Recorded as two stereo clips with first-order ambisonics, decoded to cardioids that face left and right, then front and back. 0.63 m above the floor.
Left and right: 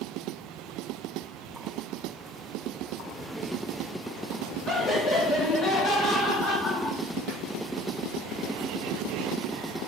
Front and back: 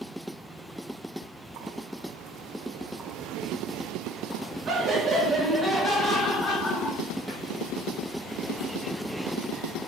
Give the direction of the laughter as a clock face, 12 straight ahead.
6 o'clock.